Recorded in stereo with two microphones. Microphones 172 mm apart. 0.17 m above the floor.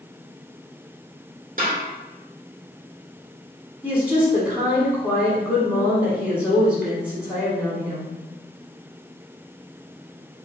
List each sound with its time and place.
1.6 s a snare drum: 55° right (ahead or behind), 1.6 m
3.8 s a woman speaking: 10° right (ahead or behind), 1.2 m